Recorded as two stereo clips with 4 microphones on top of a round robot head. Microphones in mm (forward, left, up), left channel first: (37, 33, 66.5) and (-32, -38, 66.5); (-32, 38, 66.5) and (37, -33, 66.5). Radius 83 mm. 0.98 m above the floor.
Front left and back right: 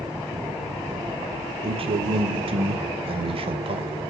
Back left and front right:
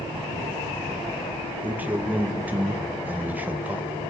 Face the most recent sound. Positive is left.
turn(degrees=-115)